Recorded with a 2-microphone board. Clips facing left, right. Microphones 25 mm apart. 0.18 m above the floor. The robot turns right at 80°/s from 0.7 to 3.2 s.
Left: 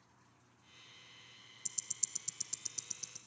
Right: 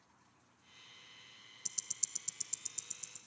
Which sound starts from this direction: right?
Ticking, at 1.6 s.